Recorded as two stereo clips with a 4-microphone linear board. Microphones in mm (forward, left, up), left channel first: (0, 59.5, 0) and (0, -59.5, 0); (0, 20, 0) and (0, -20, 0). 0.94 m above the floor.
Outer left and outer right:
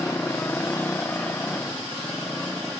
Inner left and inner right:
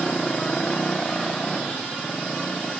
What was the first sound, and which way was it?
A motorcycle, 15° left (ahead or behind).